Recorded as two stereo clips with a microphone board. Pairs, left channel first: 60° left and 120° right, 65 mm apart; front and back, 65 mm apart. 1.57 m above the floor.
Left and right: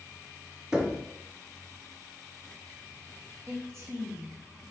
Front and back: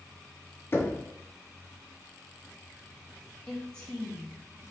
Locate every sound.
0.7 s knocking: 45° right, 0.5 m
3.5 s a woman speaking: 75° right, 1.0 m